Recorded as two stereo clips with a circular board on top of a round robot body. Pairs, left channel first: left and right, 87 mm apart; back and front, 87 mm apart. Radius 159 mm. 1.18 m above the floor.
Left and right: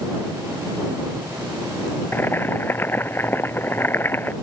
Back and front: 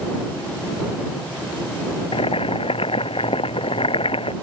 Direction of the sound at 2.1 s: 160° left.